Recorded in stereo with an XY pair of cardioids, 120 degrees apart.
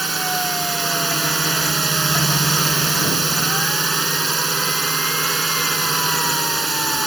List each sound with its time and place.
0.0 s a drone: 15° right